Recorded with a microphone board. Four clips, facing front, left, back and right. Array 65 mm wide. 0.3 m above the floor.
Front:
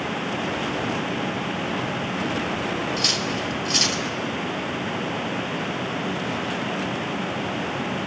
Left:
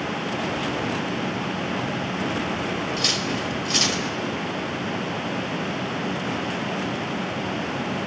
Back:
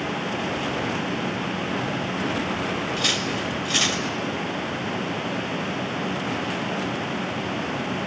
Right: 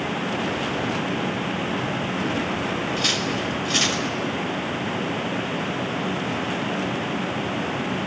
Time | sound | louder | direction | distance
3.0 | cutlery clinking | right 1 dB, even | 155° right | 0.8 m